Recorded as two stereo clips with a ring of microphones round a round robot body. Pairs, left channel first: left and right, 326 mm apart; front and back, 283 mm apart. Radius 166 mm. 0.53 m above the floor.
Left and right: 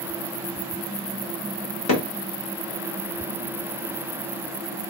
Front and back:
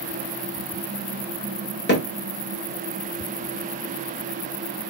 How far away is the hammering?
About 1.5 m.